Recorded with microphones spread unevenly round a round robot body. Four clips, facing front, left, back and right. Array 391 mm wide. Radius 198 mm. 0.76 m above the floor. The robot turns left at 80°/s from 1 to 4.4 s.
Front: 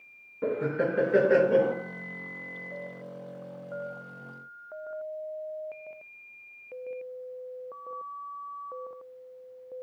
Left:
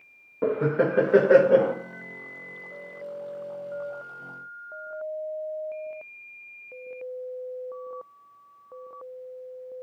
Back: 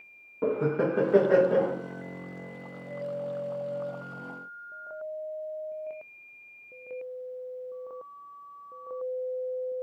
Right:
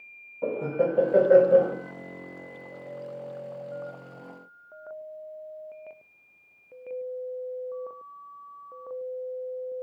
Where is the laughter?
115° left, 1.0 m; by 1.8 s 55° left, 1.0 m.